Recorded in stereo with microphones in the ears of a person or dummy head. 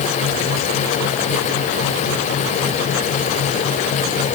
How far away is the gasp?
I don't hear a gasp.